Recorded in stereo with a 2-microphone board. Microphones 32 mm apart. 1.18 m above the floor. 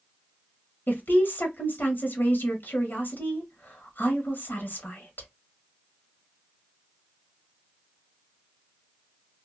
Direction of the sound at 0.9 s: 85° left.